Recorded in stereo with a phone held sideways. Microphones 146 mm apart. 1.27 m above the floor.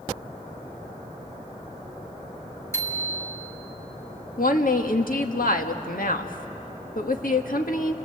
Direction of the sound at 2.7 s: 20° left (ahead or behind).